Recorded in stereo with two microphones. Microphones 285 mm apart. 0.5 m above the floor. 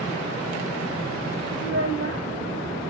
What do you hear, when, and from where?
1.6 s a child speaking: 45° right (ahead or behind), 1.5 m